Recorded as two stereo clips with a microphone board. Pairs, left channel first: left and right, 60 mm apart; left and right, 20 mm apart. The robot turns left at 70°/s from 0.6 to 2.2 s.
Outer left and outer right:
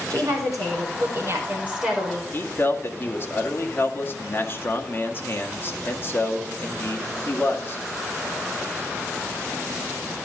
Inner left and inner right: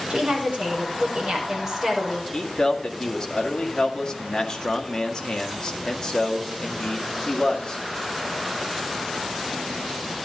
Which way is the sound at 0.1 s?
80° right.